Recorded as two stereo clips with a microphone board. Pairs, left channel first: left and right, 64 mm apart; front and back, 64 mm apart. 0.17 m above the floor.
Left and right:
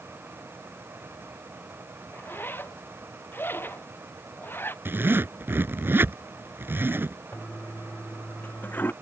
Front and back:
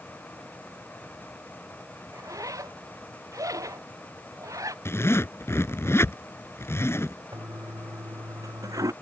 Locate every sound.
2.1 s a zipper: 150° left
4.8 s a zipper: 35° right
7.3 s a toilet flushing: 155° left